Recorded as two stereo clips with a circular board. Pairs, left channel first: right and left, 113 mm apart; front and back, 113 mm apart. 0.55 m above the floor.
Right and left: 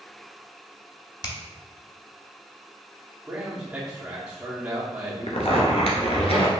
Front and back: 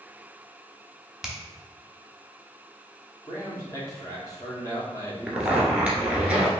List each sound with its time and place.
1.2 s a finger snap: 95° right, 0.9 m
3.3 s a man speaking: 20° left, 1.2 m
5.3 s a zipper: 105° right, 1.1 m